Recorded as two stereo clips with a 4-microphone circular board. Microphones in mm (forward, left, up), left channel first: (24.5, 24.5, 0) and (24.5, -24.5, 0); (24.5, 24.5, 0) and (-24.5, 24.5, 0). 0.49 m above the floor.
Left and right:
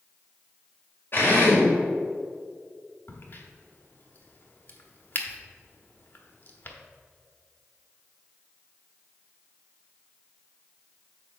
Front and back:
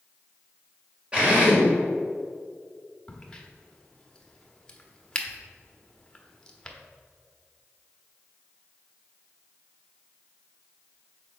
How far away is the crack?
About 1.0 m.